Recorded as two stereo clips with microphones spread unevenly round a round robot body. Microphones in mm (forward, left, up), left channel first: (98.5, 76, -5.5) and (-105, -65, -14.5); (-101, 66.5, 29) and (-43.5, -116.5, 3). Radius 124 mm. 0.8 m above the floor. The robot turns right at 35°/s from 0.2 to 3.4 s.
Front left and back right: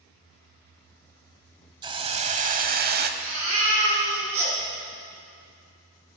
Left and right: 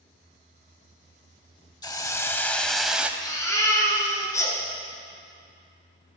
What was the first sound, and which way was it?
A hiss, 150° left.